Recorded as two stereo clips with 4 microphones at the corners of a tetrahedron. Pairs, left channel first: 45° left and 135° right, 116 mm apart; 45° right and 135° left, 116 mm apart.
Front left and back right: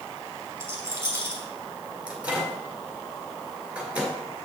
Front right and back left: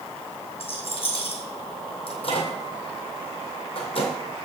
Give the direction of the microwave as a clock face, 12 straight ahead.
2 o'clock.